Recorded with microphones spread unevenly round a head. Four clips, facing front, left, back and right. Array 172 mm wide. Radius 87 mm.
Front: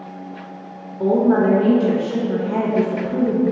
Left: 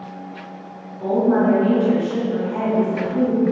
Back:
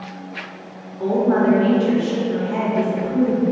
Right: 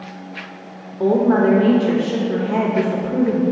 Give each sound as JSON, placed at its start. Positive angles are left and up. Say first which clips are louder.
{"t": 1.0, "sound": "a woman speaking", "louder": "right 2 dB, front 2 dB", "azimuth_deg": -65, "distance_m": 0.6}